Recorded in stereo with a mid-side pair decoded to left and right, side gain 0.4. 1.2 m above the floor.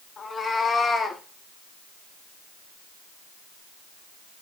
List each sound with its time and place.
0.2 s a cat meowing: 50° left, 1.8 m; by 1.2 s 55° left, 1.1 m